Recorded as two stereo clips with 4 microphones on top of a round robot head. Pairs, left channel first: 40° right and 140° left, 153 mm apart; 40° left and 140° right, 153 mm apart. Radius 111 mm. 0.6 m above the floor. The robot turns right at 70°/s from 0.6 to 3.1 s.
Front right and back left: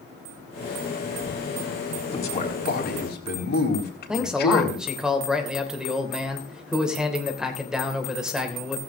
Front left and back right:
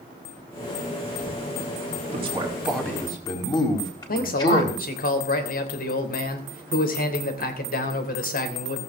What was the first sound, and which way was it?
A man speaking, 95° right.